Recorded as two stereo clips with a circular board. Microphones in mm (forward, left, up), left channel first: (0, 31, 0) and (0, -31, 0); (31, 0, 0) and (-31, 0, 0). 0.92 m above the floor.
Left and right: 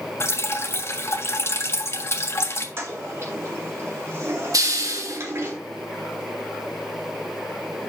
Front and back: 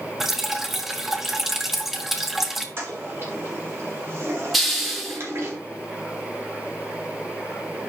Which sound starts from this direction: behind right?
A toilet flushing, at 2.8 s.